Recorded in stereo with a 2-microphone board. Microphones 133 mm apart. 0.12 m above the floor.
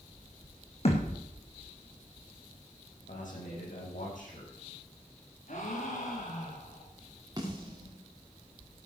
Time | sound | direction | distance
0.8 | a thud | 50° left (ahead or behind) | 3.5 m
3.1 | a man speaking | 70° left (ahead or behind) | 8 m
5.5 | a gasp | 65° left (ahead or behind) | 5.5 m
7.4 | a snare drum | 30° right (ahead or behind) | 5 m